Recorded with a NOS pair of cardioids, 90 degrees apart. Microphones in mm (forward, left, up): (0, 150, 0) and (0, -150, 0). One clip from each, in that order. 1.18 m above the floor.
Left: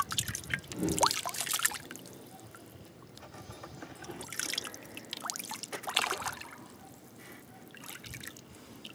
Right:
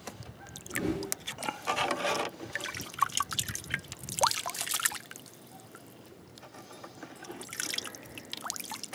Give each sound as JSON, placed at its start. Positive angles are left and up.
{"t": 0.7, "sound": "a whoosh", "azimuth_deg": -25, "distance_m": 1.9}